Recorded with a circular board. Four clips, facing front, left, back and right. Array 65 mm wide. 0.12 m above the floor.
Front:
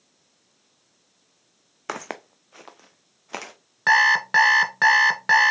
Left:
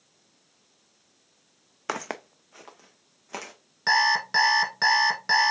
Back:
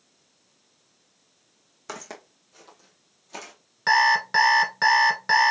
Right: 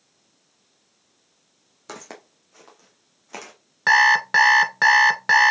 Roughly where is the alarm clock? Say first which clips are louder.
Right 6 dB, front 2 dB; ahead right.